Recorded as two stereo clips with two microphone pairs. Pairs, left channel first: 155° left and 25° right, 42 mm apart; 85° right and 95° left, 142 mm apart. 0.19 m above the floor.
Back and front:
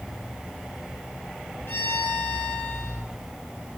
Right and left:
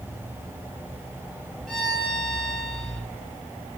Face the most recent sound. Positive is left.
turn(degrees=-170)